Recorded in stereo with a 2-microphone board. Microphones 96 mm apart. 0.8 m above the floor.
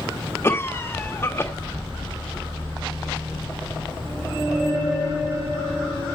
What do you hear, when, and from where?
0.4 s a cough: 25° left (ahead or behind), 1.0 m